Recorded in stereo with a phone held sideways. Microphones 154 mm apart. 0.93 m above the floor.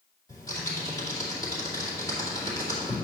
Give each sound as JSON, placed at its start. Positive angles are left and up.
{"t": 0.3, "sound": "typing on a keyboard", "side_deg": 25, "distance_m": 2.5}